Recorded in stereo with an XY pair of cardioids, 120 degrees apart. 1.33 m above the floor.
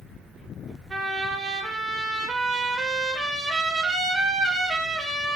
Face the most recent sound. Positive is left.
turn(degrees=-30)